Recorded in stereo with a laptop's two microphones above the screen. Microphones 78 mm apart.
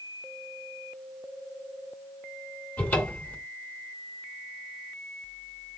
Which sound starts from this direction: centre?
A cupboard door, at 2.8 s.